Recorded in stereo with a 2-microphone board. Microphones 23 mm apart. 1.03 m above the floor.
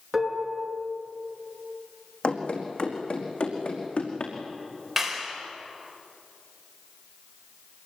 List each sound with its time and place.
0.1 s dishes clattering: 5° right (ahead or behind), 7.5 m
2.2 s running footsteps: 60° left (ahead or behind), 4.5 m; by 4.3 s 75° left (ahead or behind), 5.5 m
5.0 s a clap: centre (ahead or behind), 4.5 m